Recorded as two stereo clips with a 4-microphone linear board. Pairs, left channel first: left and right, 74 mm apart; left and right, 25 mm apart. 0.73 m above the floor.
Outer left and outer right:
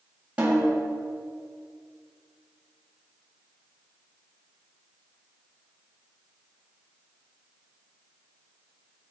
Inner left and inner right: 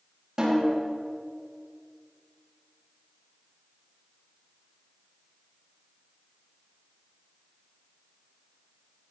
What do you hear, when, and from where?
0.4 s a snare drum: 20° right (ahead or behind), 5 m